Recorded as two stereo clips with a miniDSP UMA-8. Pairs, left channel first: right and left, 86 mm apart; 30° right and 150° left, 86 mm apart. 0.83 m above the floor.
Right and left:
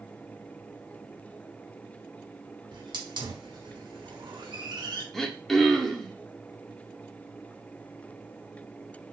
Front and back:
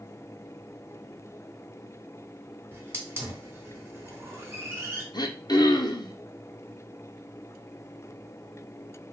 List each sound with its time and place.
2.7 s a hiss: 90° left, 0.9 m
5.1 s throat clearing: 5° right, 0.5 m